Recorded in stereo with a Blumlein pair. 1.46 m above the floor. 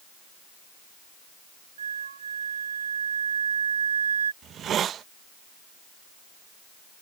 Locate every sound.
1.8 s a flute: 70° right
4.4 s a hiss: 25° right